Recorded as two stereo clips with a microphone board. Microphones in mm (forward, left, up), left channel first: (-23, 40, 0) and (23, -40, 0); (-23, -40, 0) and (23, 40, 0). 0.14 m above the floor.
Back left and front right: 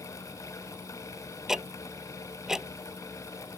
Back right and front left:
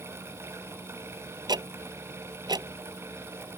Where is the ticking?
25° left.